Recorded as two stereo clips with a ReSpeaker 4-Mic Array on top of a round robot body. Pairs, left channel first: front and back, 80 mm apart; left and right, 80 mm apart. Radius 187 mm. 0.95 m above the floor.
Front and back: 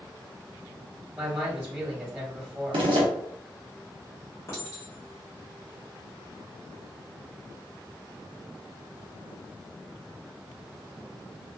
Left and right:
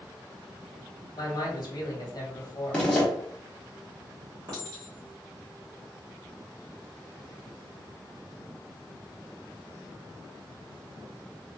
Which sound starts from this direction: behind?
A zipper, at 2.7 s.